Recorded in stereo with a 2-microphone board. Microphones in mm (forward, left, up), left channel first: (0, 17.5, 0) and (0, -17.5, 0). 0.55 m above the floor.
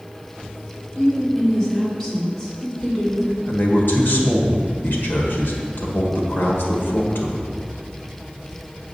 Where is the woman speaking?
15° left (ahead or behind), 2 m.